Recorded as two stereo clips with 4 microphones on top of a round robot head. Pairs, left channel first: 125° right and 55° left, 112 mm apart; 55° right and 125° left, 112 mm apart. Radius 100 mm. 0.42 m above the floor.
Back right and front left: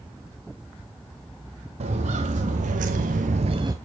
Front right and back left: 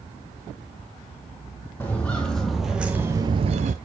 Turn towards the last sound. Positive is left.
turn(degrees=115)